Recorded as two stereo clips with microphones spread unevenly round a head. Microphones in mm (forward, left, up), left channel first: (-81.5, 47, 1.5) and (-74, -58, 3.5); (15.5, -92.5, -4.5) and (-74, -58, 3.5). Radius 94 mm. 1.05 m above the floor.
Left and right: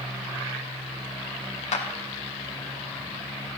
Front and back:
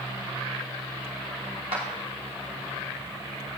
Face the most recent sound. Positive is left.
turn(degrees=95)